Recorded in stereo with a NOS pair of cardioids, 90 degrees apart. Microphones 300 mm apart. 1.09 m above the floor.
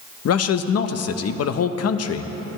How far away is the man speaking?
About 1.0 m.